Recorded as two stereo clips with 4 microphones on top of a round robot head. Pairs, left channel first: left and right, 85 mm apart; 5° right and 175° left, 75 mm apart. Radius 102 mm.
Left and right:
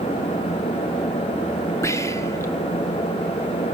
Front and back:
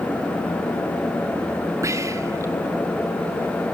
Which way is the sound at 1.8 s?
140° left.